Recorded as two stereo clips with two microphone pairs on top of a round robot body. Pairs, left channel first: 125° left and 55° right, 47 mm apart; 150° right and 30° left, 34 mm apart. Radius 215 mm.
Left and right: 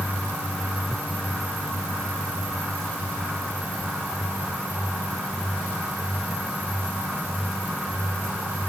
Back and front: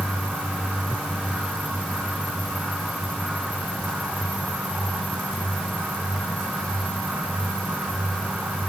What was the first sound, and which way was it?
Only background noise.